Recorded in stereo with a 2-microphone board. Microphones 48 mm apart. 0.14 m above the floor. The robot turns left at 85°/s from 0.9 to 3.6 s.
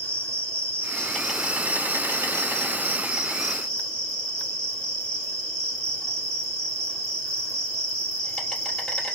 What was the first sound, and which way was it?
An insect, 30° left.